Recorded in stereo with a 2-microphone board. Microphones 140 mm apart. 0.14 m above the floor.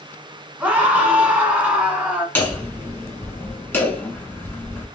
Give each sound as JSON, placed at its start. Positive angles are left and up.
{"t": 0.6, "sound": "a scream", "side_deg": -10, "distance_m": 1.3}
{"t": 2.4, "sound": "hammering", "side_deg": 15, "distance_m": 1.3}